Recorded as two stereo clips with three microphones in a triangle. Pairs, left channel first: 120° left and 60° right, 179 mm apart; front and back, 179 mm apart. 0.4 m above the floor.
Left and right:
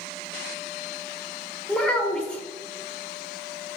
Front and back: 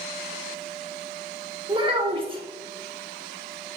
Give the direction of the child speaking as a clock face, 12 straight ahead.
5 o'clock.